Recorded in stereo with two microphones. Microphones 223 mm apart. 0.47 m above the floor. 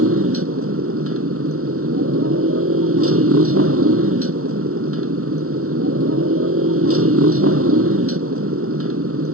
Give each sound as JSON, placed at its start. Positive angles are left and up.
{"t": 0.0, "sound": "a motorcycle", "side_deg": -80}